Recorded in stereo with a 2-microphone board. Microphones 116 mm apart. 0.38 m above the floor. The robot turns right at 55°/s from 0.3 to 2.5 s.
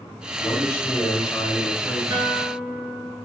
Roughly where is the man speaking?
Behind left.